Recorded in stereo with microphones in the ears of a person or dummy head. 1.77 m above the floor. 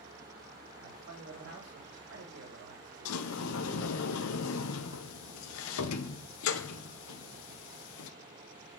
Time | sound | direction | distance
0.8 | a man speaking | 75° right (ahead or behind) | 4 m
3.0 | a sliding door | 80° left | 1.2 m